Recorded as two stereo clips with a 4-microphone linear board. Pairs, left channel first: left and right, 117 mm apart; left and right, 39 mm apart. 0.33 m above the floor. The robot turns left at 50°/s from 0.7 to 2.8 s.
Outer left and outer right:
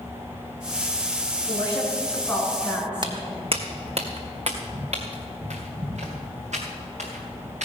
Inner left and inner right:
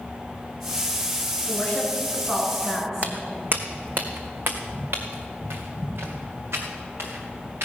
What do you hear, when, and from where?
1.5 s a woman speaking: 60° left, 4.5 m; by 3.1 s 10° right, 4.5 m
3.0 s footsteps: 40° right (ahead or behind), 0.9 m; by 7.6 s 80° right, 3.5 m